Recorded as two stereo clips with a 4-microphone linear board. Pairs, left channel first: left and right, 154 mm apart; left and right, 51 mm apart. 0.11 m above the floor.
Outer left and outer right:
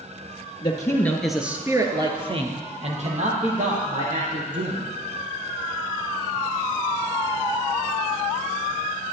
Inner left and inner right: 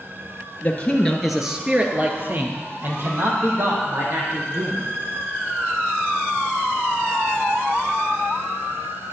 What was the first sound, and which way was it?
A man speaking, 30° left (ahead or behind).